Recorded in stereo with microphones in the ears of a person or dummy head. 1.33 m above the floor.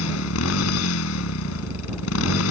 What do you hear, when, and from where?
0.0 s a motorcycle: 80° left